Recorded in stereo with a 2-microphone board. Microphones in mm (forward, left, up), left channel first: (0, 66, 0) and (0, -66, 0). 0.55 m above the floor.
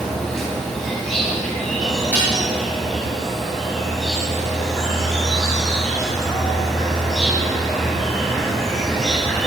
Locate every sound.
0.0 s an insect: 5° left (ahead or behind), 4 m
2.1 s dishes clattering: 15° right (ahead or behind), 7.5 m